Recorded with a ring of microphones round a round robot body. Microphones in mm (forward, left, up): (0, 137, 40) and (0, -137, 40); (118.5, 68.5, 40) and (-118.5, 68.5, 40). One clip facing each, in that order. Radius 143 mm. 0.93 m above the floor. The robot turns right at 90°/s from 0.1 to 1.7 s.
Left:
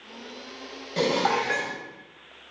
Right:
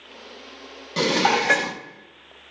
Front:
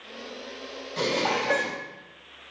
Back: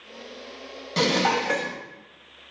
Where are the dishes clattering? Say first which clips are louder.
Right 2 dB, back 4 dB; 165° right, 0.6 m; by 1.8 s 100° right, 0.6 m.